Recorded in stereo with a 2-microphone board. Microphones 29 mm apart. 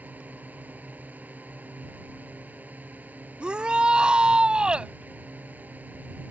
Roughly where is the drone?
Right.